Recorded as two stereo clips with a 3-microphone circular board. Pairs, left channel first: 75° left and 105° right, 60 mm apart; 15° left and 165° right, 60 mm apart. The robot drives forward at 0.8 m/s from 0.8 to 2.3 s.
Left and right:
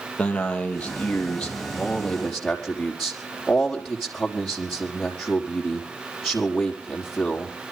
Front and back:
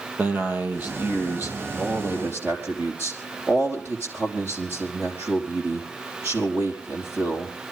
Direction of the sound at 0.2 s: 140° left.